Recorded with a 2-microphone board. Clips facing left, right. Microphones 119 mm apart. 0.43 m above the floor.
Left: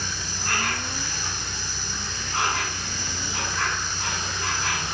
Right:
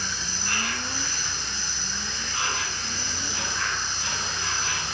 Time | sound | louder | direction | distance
0.0 | an insect | left 1 dB | 55° left (ahead or behind) | 1.5 m